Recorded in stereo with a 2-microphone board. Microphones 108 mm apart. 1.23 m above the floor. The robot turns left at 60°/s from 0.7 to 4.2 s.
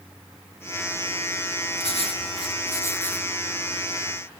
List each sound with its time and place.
1.8 s writing: 95° left, 1.4 m; by 3.3 s 5° left, 1.4 m